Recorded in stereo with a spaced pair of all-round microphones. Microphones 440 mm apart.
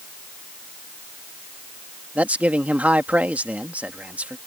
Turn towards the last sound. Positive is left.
turn(degrees=-5)  # may be behind; listen again after turning